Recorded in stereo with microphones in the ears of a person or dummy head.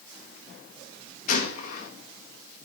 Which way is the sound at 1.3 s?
40° left (ahead or behind).